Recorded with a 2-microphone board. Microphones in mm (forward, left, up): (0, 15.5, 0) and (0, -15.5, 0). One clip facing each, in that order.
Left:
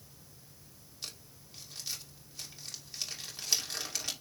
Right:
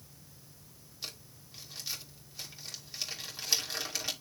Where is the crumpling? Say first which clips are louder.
Right 2 dB; 10° right (ahead or behind), 2.5 m.